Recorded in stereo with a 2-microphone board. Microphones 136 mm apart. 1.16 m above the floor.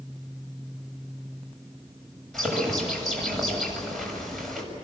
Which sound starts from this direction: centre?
A bird, at 2.3 s.